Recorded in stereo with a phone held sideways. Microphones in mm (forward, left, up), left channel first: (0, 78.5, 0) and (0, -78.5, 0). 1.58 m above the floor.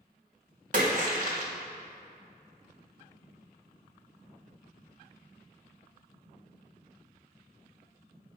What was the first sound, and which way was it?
A splash, 50° right (ahead or behind).